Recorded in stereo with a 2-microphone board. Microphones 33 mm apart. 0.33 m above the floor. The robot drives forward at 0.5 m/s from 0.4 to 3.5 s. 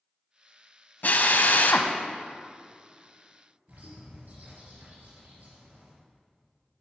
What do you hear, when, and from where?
1.0 s a drill: 60° left (ahead or behind), 0.8 m; by 1.9 s 70° left (ahead or behind), 0.7 m
3.7 s a bird: 55° right (ahead or behind), 3 m